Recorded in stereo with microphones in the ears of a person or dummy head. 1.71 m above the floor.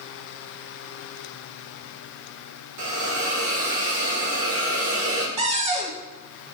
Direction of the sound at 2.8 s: 65° right (ahead or behind).